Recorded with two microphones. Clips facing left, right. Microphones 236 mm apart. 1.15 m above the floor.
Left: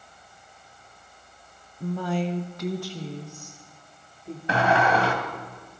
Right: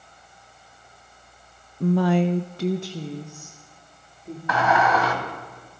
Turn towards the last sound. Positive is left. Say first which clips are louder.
# even
turn(degrees=30)  # may be behind; listen again after turning